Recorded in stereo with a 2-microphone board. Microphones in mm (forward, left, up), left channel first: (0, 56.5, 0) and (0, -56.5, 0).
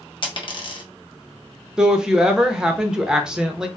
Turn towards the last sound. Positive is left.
turn(degrees=-5)  # may be behind; listen again after turning